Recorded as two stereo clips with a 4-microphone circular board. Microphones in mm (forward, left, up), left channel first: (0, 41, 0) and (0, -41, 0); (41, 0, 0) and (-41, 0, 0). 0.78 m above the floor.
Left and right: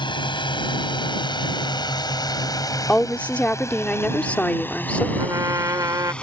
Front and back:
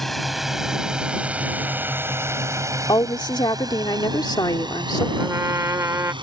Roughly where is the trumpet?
Behind right.